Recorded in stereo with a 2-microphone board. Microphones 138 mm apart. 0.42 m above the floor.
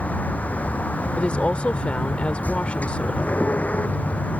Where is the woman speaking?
10° left (ahead or behind).